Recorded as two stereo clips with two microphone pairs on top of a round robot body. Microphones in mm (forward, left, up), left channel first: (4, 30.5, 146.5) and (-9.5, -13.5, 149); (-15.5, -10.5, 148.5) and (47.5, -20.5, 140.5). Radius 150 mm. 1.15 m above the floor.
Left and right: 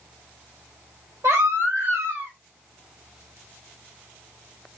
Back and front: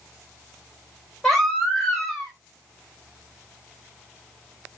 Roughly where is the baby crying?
Right.